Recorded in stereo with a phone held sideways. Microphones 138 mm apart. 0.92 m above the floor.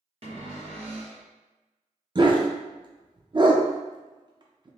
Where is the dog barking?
35° right (ahead or behind), 0.5 m.